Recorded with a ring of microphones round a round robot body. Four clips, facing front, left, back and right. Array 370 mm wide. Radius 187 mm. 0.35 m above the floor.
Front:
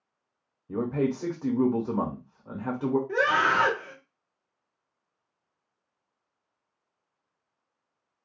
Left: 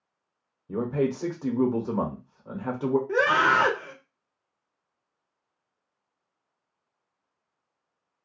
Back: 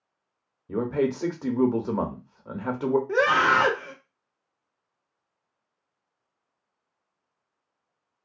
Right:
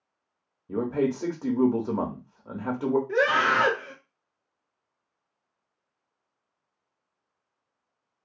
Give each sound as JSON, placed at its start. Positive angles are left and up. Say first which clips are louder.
{"t": 0.7, "sound": "a man speaking", "louder": "even, back 2 dB", "azimuth_deg": -170, "distance_m": 0.8}
{"t": 3.1, "sound": "a scream", "louder": "left 3 dB, back 4 dB", "azimuth_deg": 145, "distance_m": 1.1}